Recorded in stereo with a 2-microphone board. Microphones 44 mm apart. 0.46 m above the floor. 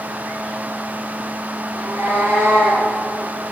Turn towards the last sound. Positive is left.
turn(degrees=-85)